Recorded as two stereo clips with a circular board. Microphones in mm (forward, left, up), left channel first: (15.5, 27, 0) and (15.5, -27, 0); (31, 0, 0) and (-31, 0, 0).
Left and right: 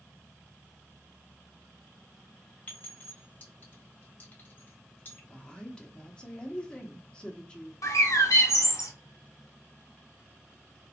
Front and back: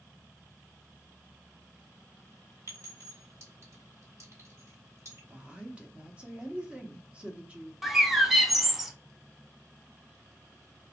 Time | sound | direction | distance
2.7 | a clink | 145° left | 1.7 m
5.3 | a woman speaking | 140° left | 0.6 m
7.8 | a bird | 95° left | 0.5 m